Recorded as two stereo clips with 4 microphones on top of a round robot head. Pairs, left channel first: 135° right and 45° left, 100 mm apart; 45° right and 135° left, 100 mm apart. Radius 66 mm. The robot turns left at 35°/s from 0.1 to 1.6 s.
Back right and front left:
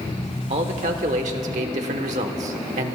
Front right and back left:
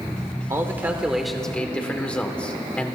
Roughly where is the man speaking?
Left.